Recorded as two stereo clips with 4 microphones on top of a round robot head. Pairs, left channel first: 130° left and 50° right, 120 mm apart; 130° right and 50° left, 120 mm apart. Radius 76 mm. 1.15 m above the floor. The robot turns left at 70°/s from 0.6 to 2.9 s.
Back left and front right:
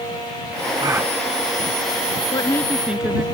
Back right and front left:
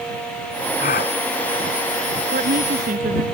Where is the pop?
I don't hear a pop.